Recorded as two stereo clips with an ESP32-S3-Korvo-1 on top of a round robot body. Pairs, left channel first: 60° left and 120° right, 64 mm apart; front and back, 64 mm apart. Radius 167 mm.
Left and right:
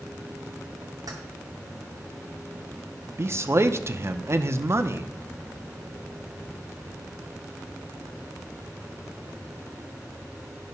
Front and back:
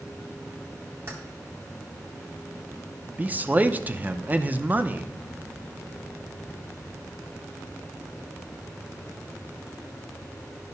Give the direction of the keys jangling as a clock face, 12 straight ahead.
4 o'clock.